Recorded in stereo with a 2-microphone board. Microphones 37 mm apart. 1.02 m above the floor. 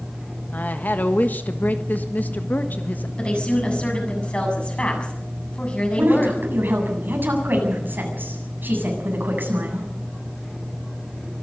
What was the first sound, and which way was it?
A woman speaking, 60° left (ahead or behind).